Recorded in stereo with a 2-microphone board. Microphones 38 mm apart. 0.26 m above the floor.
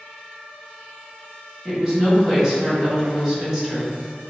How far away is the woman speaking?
About 1.4 m.